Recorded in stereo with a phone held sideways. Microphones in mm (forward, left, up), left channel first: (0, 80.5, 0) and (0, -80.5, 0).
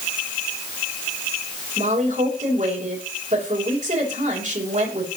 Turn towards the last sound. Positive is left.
turn(degrees=-50)  # may be behind; listen again after turning